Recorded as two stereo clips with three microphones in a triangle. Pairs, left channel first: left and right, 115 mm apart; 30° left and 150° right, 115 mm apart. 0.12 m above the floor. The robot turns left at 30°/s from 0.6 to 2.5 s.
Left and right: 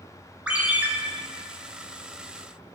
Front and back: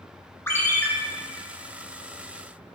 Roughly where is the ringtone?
Ahead.